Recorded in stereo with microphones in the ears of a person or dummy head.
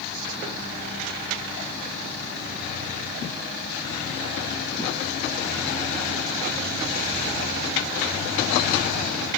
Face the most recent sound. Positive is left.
No sound to turn to.